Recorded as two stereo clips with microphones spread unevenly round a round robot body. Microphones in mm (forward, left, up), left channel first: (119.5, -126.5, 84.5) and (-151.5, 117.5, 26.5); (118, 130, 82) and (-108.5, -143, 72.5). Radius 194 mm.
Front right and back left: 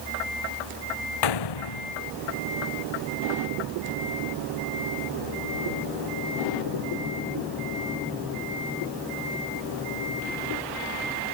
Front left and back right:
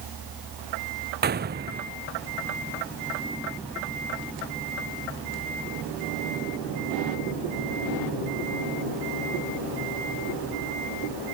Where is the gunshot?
65° right.